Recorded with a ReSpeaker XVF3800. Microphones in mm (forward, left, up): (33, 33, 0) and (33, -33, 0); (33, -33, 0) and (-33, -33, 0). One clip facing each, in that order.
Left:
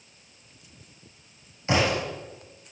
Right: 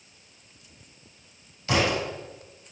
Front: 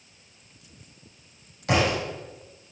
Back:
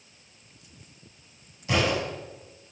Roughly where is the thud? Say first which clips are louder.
Left 1 dB, front 2 dB; ahead left.